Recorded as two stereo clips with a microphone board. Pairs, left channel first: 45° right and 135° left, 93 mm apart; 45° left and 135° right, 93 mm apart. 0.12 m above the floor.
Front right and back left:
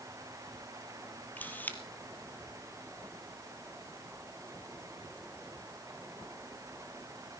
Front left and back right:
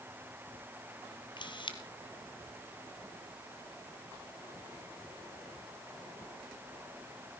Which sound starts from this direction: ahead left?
A camera shutter, at 1.4 s.